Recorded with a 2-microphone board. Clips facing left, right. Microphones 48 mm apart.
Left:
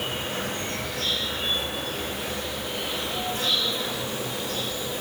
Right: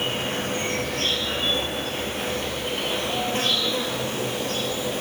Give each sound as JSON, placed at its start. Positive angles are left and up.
{"t": 0.0, "sound": "an insect", "side_deg": -55, "distance_m": 0.8}